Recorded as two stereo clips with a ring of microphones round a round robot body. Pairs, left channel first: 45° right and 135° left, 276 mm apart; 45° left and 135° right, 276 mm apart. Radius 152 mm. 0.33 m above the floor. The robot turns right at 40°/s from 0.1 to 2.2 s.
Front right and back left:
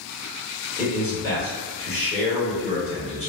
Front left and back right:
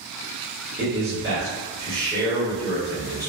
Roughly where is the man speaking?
Behind right.